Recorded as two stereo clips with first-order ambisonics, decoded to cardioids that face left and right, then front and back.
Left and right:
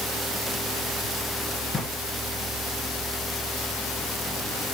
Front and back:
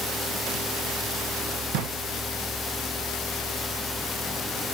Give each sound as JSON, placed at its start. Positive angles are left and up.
{"t": 1.7, "sound": "a drawer", "azimuth_deg": 165, "distance_m": 2.5}